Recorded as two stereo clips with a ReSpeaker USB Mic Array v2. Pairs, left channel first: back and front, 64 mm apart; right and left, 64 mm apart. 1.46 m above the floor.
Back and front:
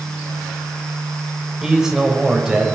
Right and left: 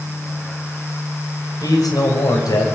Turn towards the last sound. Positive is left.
turn(degrees=-80)